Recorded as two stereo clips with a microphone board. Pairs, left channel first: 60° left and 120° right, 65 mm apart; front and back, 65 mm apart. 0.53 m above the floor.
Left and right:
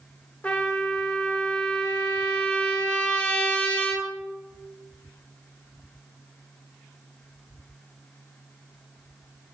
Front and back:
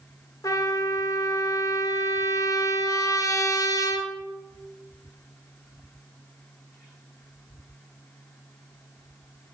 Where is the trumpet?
10° right, 1.2 m.